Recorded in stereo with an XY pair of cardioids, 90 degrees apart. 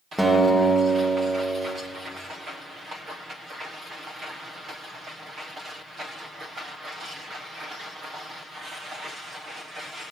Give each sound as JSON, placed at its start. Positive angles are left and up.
{"t": 0.2, "sound": "a guitar", "azimuth_deg": -5, "distance_m": 1.4}